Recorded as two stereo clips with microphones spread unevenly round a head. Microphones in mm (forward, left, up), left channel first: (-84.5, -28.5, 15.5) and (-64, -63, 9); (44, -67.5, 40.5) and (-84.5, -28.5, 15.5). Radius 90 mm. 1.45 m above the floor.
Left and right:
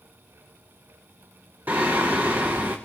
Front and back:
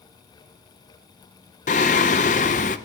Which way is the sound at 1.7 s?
15° left.